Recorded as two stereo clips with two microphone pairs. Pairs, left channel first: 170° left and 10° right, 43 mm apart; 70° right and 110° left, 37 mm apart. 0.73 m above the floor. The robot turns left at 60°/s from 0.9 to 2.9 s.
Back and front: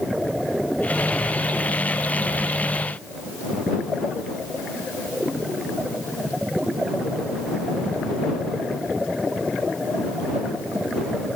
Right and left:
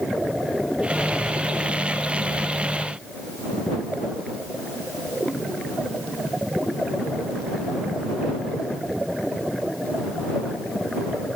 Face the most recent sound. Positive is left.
No sound to turn to.